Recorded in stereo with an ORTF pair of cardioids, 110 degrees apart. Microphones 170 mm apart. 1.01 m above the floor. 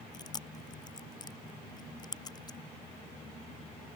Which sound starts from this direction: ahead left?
Chewing, at 0.1 s.